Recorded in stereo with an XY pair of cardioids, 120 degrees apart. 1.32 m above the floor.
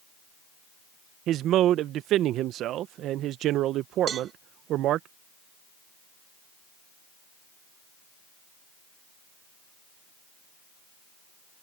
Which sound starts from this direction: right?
A man speaking, at 1.3 s.